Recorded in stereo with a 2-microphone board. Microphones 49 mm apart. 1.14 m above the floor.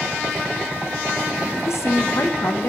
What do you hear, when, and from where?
1.7 s a woman speaking: 70° left (ahead or behind), 0.7 m